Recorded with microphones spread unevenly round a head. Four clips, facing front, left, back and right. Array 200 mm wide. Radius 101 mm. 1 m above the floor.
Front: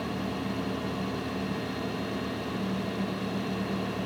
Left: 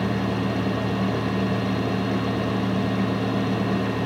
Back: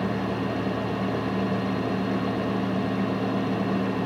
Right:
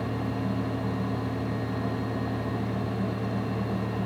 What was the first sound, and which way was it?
Only background noise.